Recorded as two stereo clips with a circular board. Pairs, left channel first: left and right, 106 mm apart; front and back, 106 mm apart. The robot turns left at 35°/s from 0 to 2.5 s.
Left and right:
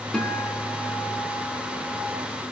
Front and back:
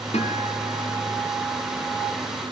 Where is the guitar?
5° left, 4 m; by 2.0 s 60° right, 4 m.